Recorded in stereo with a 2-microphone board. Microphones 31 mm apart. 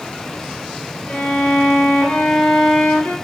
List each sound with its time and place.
1.1 s a violin: 65° left (ahead or behind), 5 m